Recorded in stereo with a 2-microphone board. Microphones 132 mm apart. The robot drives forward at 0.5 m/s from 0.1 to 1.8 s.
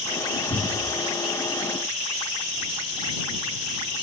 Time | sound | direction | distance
0.5 | a cupboard door | 65° left (ahead or behind) | 2.5 m